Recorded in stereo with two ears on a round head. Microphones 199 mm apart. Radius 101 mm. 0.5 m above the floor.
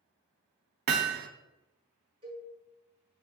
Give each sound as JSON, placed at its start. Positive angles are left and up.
{"t": 0.9, "sound": "hammering", "side_deg": -45, "distance_m": 0.8}
{"t": 2.2, "sound": "a cowbell", "side_deg": -20, "distance_m": 3.5}